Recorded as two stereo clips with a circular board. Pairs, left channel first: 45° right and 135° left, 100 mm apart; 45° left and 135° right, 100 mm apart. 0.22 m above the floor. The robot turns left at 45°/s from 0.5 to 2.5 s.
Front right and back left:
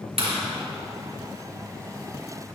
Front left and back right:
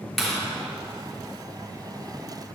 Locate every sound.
0.2 s a clap: 135° left, 3.5 m